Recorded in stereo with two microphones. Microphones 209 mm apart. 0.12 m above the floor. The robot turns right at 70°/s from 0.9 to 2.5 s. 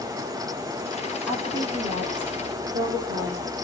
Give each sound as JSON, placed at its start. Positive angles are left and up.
{"t": 1.3, "sound": "a woman speaking", "azimuth_deg": 175, "distance_m": 6.0}